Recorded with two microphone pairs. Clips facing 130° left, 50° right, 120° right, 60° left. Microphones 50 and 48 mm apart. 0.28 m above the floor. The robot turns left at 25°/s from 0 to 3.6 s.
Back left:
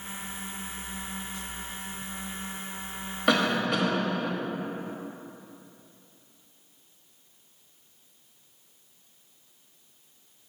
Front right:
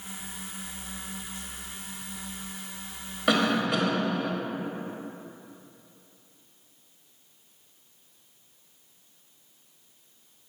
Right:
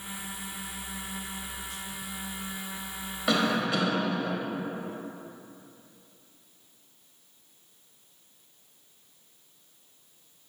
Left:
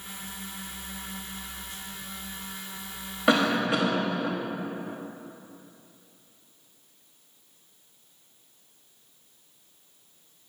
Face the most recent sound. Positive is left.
turn(degrees=30)